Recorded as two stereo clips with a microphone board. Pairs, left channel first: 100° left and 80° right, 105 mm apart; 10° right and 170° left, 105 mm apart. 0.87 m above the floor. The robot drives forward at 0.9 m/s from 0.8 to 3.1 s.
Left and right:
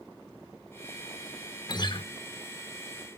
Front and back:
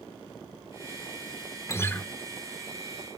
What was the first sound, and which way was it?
A guitar, 50° left.